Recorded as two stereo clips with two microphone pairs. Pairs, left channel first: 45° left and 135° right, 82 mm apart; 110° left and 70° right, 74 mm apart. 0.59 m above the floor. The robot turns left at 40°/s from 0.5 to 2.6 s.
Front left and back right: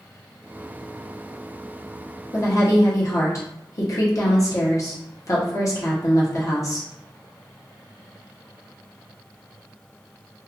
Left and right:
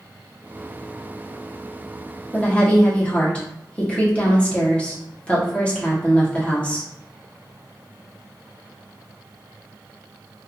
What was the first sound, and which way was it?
A woman speaking, 50° left.